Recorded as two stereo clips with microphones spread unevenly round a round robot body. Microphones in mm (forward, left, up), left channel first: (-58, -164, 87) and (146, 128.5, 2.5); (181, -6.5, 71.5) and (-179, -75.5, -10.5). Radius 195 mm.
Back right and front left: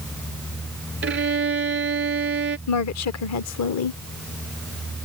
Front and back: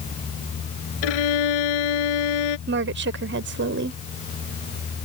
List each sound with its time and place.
1.0 s a violin: 5° right
2.7 s a woman speaking: 165° right